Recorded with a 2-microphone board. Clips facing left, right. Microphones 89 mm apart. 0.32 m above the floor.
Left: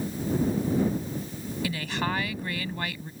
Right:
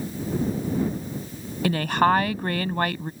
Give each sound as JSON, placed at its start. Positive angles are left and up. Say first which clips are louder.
{"t": 1.6, "sound": "a woman speaking", "louder": "right 11 dB", "side_deg": -55}